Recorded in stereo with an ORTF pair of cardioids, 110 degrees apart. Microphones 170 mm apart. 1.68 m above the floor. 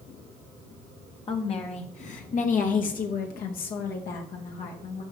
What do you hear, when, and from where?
1.3 s a woman speaking: 35° left, 1.4 m; by 5.0 s 75° left, 3 m